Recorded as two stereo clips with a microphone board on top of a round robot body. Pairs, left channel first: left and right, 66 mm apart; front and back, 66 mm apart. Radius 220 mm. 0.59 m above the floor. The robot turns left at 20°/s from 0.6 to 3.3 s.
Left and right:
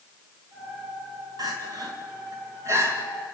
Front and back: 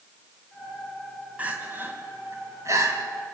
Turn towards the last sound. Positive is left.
turn(degrees=-150)